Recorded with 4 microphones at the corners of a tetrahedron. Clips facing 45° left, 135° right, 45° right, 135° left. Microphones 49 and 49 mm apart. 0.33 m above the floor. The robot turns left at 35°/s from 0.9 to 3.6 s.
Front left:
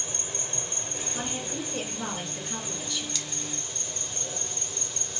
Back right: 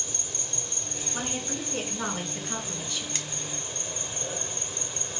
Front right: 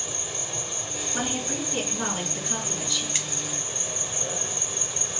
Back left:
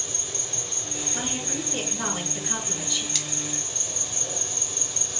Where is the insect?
15° left, 0.7 m; by 5.2 s 80° right, 0.7 m.